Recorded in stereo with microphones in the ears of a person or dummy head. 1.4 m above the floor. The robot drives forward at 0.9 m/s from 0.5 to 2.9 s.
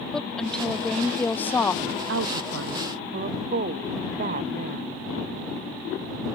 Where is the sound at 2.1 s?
70° right (ahead or behind); by 5.0 s 40° right (ahead or behind).